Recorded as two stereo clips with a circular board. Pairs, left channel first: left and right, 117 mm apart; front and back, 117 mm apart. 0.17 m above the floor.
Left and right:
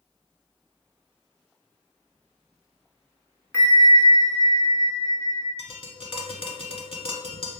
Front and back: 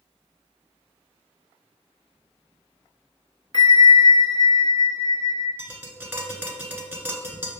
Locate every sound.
3.5 s a bell: 35° left, 0.7 m
5.6 s tapping: 110° left, 0.9 m